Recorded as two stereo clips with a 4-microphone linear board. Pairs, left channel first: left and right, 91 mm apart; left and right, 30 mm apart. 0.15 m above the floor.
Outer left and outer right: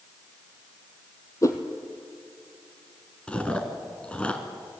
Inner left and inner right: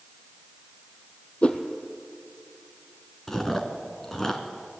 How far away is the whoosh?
About 1.9 m.